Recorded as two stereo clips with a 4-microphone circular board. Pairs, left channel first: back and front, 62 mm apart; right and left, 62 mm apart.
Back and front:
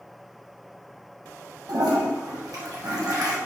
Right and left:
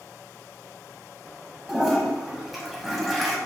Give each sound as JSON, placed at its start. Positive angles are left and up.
{"t": 1.7, "sound": "a toilet flushing", "azimuth_deg": 0, "distance_m": 0.8}